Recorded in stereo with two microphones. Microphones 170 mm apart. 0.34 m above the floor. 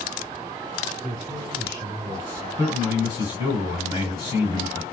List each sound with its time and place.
1.0 s a man speaking: 25° right (ahead or behind), 1.3 m
2.6 s a man speaking: 30° left (ahead or behind), 2.5 m